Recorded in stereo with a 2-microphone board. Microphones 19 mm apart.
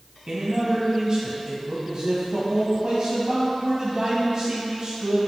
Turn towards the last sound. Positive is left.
turn(degrees=-45)  # may be behind; listen again after turning